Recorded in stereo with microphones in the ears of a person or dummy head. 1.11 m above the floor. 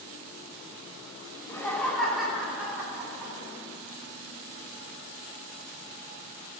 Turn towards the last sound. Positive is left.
turn(degrees=-20)  # may be behind; listen again after turning